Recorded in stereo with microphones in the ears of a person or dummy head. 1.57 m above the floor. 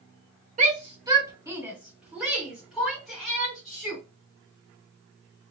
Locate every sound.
0.6 s a shout: 40° right (ahead or behind), 0.8 m; by 4.0 s centre (ahead or behind), 3.5 m